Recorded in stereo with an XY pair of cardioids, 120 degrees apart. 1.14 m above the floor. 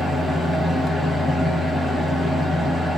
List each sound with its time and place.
0.0 s a fan: 15° left, 0.9 m